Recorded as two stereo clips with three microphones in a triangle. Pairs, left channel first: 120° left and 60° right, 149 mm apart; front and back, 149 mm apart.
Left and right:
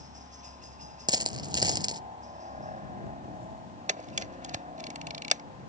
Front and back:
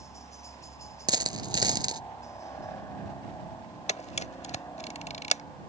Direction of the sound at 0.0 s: 65° right.